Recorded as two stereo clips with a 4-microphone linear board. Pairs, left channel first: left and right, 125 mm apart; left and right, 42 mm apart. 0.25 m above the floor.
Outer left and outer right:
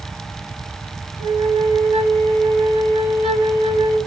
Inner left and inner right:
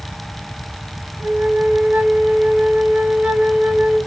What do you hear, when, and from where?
1.2 s a flute: 55° right (ahead or behind), 0.7 m